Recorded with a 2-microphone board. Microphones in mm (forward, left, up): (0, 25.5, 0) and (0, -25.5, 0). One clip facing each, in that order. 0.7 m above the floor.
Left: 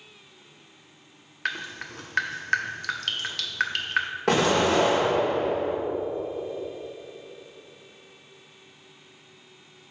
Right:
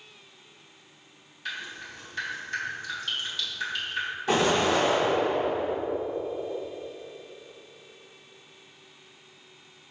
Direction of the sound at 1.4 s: 65° left (ahead or behind).